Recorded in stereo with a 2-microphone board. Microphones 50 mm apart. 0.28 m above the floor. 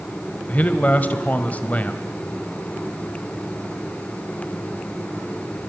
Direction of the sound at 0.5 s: 35° left (ahead or behind).